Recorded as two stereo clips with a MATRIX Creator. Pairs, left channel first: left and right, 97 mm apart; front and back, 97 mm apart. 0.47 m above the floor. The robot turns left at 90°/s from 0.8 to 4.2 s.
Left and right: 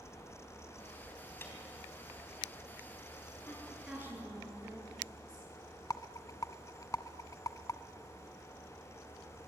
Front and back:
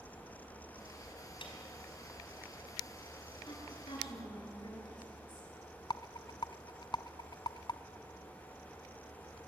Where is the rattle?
40° left, 0.8 m.